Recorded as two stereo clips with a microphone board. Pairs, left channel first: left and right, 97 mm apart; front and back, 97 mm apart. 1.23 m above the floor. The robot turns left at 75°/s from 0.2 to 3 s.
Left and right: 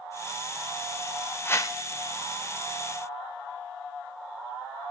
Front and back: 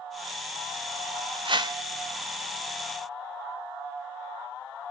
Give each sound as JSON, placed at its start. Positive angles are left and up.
{"t": 1.4, "sound": "a whoosh", "azimuth_deg": 155, "distance_m": 0.5}